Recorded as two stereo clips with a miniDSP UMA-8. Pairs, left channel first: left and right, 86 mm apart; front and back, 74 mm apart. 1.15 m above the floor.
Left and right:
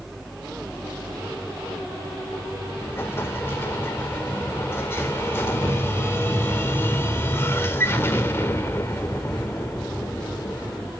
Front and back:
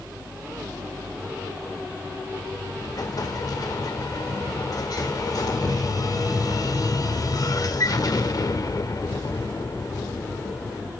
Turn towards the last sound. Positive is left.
turn(degrees=30)